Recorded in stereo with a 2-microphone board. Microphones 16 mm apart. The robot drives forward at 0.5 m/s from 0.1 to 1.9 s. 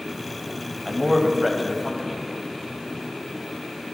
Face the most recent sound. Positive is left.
turn(degrees=-5)  # may be behind; listen again after turning